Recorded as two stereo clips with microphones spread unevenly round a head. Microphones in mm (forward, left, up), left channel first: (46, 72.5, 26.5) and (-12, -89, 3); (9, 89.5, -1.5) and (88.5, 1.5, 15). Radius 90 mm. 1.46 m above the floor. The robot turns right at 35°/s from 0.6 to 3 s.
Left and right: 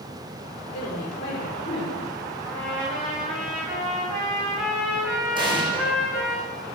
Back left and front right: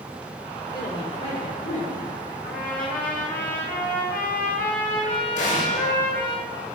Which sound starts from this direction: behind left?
A trumpet, at 2.4 s.